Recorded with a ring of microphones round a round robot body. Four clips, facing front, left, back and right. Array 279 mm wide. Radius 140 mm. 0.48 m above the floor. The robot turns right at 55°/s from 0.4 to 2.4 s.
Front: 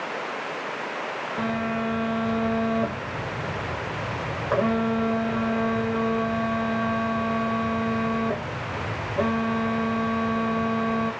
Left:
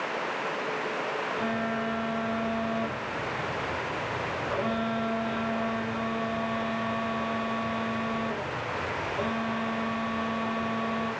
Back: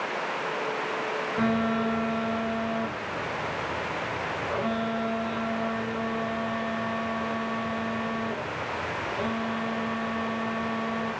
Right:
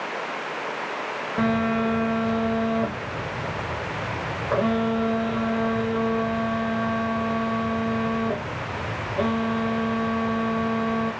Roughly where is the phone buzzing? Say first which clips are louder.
Right 12 dB, back 1 dB; right.